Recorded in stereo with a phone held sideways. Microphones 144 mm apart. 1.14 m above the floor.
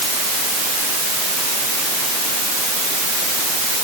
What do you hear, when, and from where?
Only background noise.